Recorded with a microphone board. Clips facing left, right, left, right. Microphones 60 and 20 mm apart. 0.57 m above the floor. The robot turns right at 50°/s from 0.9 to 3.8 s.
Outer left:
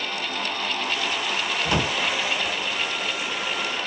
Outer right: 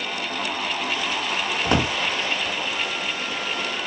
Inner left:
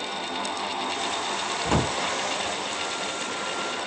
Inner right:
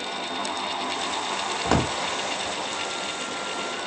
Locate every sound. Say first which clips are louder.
1.6 s a drawer: outer right 3 dB, inner right 2 dB; 25° right (ahead or behind), 0.8 m; by 1.9 s 40° right (ahead or behind), 0.8 m